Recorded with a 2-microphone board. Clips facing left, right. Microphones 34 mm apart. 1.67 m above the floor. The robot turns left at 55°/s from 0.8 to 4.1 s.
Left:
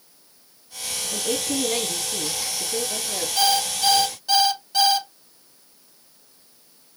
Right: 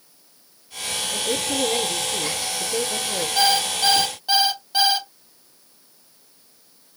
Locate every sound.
1.1 s a woman speaking: 60° left, 2.5 m; by 3.3 s 60° right, 2.5 m
3.4 s an alarm clock: 110° right, 0.9 m; by 5.1 s 150° right, 0.9 m